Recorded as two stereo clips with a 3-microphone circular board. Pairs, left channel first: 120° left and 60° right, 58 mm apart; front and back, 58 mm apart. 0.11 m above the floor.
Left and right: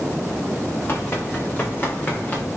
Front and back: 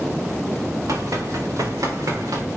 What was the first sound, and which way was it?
Running footsteps, 175° left.